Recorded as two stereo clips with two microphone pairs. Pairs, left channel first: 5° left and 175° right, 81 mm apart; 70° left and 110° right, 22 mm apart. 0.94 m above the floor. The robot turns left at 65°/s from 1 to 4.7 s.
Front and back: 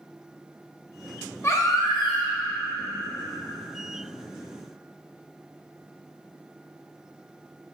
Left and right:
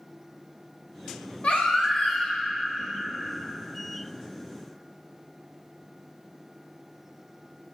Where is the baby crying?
65° left, 0.8 m; by 2.4 s straight ahead, 0.8 m.